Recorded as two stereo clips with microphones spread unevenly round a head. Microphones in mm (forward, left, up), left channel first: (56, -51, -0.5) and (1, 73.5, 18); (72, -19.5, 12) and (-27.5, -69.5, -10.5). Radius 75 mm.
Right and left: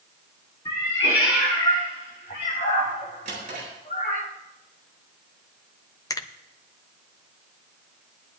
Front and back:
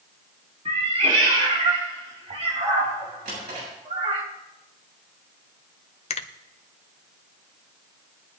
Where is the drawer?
165° left, 8 m.